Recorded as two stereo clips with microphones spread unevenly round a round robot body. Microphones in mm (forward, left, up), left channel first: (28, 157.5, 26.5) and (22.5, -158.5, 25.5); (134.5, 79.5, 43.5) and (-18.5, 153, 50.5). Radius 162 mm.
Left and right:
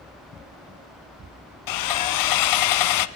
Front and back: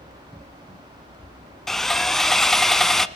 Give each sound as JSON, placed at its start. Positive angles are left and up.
{"t": 1.7, "sound": "sawing", "azimuth_deg": 65, "distance_m": 0.9}